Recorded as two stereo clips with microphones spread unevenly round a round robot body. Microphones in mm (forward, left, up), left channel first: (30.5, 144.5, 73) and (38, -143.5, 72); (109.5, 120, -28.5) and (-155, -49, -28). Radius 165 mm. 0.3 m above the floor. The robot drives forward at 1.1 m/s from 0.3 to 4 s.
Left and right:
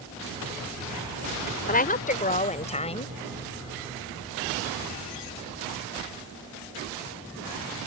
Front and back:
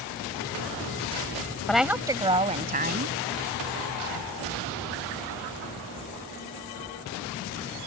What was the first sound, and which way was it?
A woman speaking, 120° left.